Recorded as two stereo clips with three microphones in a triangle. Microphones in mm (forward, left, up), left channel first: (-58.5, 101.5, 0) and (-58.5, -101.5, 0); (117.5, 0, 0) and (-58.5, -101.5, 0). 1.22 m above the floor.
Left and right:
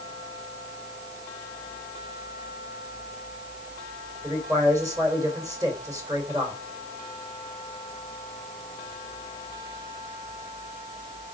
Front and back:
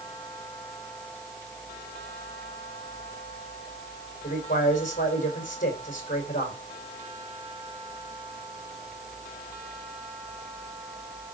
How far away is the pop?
No pop in this recording.